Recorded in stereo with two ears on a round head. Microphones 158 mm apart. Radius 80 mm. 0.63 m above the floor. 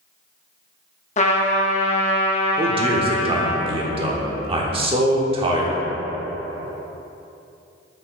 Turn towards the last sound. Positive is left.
turn(degrees=-35)  # may be behind; listen again after turning